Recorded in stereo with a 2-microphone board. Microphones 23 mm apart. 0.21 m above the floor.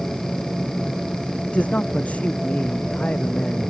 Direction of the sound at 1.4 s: 75° left (ahead or behind).